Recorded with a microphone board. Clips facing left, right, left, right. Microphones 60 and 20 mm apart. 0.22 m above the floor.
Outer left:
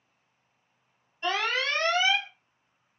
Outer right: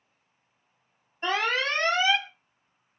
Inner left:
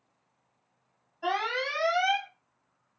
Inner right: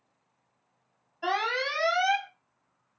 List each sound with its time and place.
1.2 s an alarm: 30° right (ahead or behind), 0.8 m